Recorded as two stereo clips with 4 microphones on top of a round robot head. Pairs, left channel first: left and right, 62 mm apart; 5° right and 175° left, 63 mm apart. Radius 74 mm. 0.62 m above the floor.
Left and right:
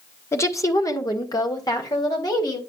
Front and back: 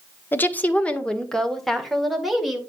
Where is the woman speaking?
50° left, 1.3 m; by 2.6 s 90° left, 2.5 m.